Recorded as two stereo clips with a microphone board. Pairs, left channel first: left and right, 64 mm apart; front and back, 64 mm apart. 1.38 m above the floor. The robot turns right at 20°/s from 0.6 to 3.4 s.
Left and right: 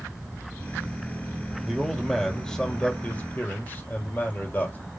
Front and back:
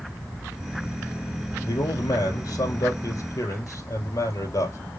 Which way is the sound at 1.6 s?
10° right.